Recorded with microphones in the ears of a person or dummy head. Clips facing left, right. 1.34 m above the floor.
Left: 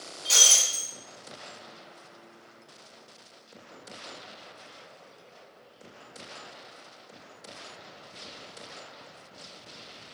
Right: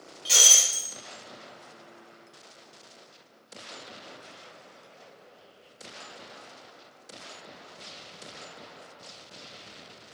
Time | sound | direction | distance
0.2 | breaking glass | 20° right (ahead or behind) | 2 m